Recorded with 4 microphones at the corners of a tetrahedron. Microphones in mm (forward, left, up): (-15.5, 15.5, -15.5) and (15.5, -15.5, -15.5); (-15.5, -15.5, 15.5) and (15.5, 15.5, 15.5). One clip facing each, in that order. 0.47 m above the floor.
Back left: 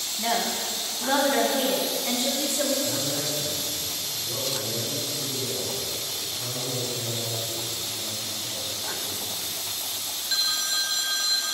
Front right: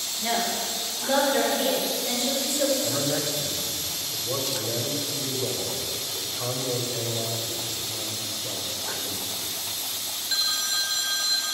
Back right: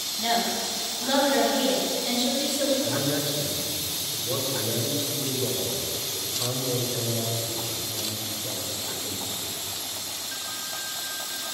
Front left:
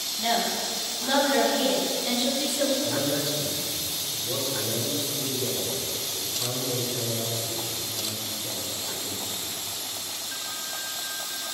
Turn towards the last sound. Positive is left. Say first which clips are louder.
# front right 2 dB, even
turn(degrees=-70)